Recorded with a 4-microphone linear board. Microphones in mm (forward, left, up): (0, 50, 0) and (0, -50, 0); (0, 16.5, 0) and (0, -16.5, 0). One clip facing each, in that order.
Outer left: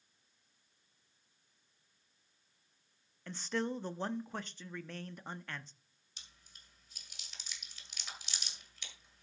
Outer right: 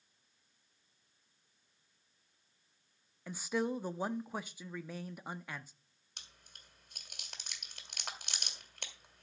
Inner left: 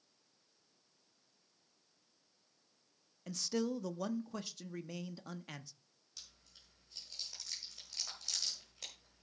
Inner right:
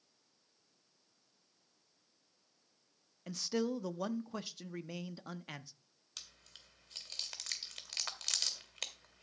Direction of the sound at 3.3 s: 10° right (ahead or behind).